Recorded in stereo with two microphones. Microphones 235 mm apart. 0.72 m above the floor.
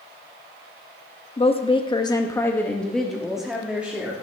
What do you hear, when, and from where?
1.4 s a woman speaking: 25° left (ahead or behind), 1.0 m; by 4.1 s 5° right (ahead or behind), 2 m